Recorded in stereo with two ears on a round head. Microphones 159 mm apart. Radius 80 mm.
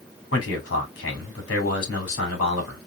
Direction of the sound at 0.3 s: 80° left.